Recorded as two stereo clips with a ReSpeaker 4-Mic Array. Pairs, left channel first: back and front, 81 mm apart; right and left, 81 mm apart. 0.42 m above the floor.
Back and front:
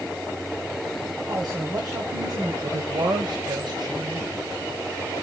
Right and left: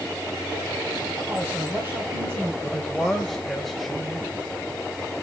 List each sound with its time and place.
1.3 s a woman speaking: 30° left, 3.5 m
2.6 s a man speaking: straight ahead, 1.9 m